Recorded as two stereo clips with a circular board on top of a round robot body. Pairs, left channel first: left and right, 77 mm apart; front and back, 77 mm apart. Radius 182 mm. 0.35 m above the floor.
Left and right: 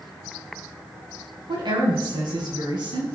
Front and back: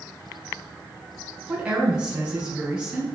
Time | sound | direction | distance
1.5 | a woman speaking | 105° right | 5 m